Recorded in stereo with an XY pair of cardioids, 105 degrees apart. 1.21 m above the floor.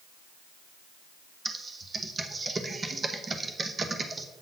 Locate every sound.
1.4 s typing on a keyboard: 30° right, 0.8 m